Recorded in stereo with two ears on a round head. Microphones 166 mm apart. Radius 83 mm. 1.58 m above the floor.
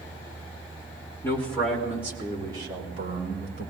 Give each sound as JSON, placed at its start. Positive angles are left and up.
{"t": 1.2, "sound": "a man speaking", "side_deg": 15, "distance_m": 2.5}